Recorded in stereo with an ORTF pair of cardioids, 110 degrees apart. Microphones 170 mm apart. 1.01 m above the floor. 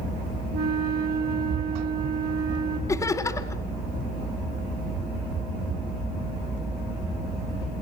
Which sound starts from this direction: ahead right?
A flute, at 0.5 s.